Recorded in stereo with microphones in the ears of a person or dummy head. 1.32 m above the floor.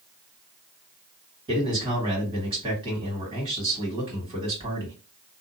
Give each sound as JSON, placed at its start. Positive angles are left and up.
{"t": 1.5, "sound": "a man speaking", "side_deg": -25, "distance_m": 1.8}